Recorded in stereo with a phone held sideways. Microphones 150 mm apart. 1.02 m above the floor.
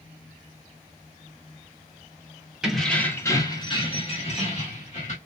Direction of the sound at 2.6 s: 5° right (ahead or behind).